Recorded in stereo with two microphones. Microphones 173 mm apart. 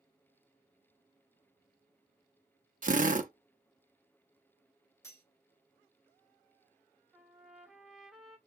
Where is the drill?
50° right (ahead or behind), 0.6 m.